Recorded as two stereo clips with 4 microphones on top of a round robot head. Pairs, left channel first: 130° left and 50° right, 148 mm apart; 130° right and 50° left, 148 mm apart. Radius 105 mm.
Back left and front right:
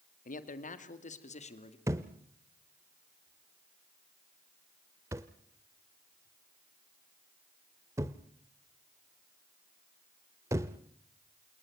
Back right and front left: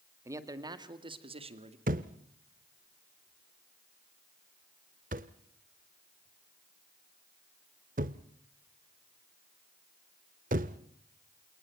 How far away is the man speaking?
About 2 m.